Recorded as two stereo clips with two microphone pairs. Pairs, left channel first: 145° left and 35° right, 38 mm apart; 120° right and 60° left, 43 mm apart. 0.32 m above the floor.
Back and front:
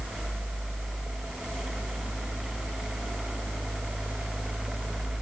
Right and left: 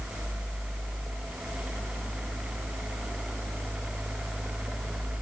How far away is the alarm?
I don't hear an alarm.